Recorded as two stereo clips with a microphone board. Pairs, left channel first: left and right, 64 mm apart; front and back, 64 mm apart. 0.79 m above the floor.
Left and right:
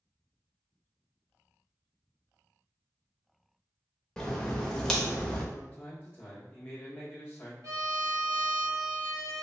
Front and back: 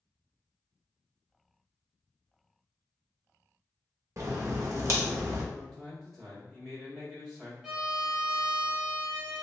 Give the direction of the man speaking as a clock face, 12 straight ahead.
9 o'clock.